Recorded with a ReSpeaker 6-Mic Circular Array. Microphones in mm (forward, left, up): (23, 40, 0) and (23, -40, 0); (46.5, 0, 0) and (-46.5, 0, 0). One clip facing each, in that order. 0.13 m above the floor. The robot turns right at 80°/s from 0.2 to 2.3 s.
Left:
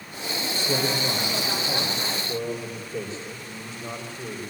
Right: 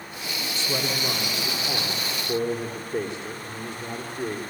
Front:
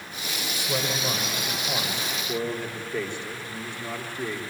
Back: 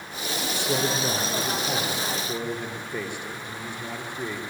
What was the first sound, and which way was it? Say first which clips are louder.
A man speaking: left 2 dB, back 3 dB; 115° left.